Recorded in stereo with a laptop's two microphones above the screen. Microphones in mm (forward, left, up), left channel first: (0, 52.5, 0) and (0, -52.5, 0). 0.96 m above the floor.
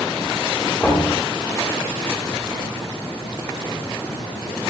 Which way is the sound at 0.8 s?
15° left (ahead or behind).